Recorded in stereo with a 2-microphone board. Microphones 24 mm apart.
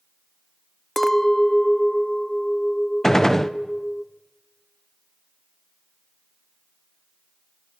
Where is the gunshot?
15° left (ahead or behind), 0.8 m.